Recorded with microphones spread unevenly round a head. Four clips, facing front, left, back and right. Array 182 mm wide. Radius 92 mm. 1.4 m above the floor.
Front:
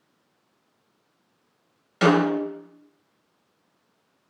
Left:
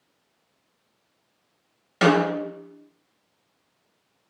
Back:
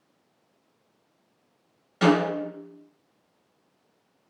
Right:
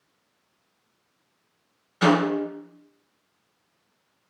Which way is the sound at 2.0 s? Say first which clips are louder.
Left 1 dB, front 2 dB; 65° left.